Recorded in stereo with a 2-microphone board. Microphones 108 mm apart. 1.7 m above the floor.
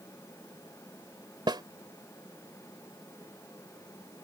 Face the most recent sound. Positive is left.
turn(degrees=-45)  # may be behind; listen again after turning